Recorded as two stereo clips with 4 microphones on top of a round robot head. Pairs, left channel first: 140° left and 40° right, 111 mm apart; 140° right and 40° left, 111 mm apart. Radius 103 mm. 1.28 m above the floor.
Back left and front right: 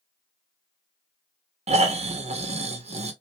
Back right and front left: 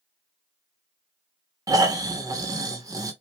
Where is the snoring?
20° right, 1.2 m.